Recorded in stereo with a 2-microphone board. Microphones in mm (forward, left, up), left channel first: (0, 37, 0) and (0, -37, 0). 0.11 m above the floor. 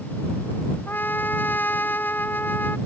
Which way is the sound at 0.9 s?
25° left (ahead or behind).